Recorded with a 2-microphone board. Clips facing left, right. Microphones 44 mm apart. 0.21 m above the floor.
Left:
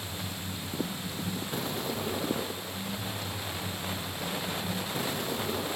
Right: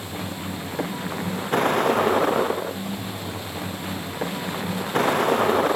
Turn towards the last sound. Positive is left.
turn(degrees=-60)  # may be behind; listen again after turning